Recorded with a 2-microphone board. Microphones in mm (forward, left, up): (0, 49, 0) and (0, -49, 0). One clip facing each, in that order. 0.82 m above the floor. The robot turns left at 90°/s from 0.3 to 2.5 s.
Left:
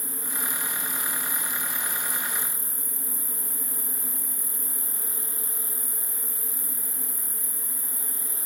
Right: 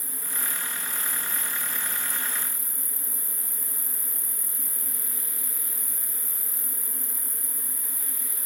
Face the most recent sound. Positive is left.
turn(degrees=-65)